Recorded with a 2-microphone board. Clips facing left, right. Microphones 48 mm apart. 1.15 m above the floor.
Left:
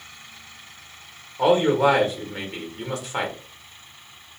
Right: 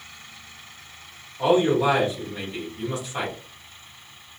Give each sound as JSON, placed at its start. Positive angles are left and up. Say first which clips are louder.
{"t": 1.4, "sound": "a man speaking", "louder": "left 2 dB", "side_deg": 60, "distance_m": 1.4}